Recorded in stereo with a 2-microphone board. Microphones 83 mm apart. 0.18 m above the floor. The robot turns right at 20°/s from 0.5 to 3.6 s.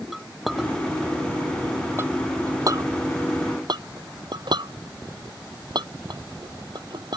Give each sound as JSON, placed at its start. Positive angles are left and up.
{"t": 0.1, "sound": "a clink", "side_deg": 0}